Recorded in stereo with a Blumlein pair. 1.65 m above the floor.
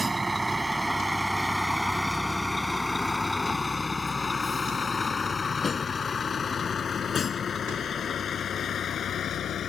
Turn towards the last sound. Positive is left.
turn(degrees=25)